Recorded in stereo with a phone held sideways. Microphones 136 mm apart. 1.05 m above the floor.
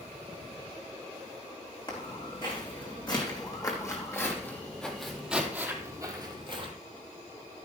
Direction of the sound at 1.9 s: 40° left (ahead or behind).